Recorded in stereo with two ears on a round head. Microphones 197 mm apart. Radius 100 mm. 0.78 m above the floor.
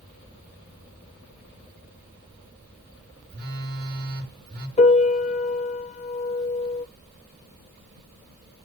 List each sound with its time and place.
3.3 s a phone buzzing: 45° right (ahead or behind), 2.5 m
4.8 s a piano: 30° left (ahead or behind), 0.5 m